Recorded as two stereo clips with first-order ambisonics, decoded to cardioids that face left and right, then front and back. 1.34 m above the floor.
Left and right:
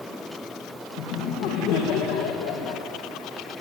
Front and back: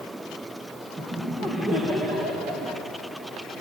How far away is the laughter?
About 1.8 m.